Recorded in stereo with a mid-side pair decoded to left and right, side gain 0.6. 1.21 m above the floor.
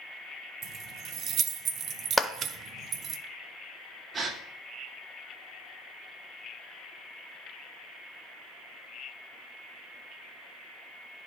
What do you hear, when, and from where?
0.6 s keys jangling: 50° right, 0.6 m
2.2 s a clap: 5° left, 0.6 m
4.1 s a gasp: 35° right, 1.3 m